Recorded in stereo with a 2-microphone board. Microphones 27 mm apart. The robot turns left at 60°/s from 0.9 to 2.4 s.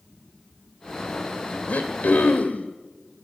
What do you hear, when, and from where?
1.7 s throat clearing: 115° left, 1.2 m; by 2.7 s 70° left, 1.2 m